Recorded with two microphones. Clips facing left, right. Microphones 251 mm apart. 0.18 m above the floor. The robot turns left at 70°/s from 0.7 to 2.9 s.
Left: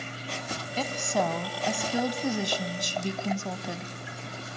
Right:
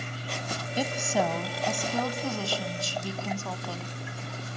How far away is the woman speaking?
About 1.0 m.